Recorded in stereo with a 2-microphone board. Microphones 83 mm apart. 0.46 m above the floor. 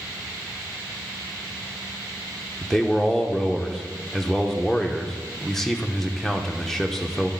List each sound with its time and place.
2.6 s a man speaking: 5° left (ahead or behind), 0.7 m